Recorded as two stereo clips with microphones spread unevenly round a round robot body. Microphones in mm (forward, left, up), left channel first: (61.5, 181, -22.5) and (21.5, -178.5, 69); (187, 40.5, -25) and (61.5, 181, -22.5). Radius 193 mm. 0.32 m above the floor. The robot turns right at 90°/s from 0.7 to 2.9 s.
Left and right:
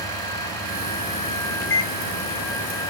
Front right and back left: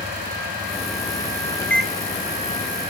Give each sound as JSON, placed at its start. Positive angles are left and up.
{"t": 1.6, "sound": "a microwave", "azimuth_deg": 25, "distance_m": 2.5}